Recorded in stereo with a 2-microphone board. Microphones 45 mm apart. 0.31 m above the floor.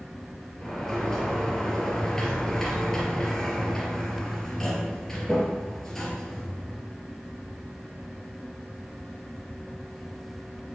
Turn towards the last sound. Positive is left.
turn(degrees=10)  # may be behind; listen again after turning